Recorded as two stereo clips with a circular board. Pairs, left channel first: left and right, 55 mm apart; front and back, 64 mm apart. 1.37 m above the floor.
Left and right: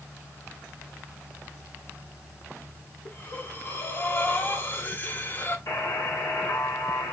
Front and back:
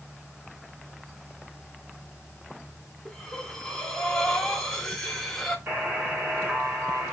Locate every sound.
3.0 s breathing: 75° left, 1.0 m
5.7 s a buzzer: 115° left, 2 m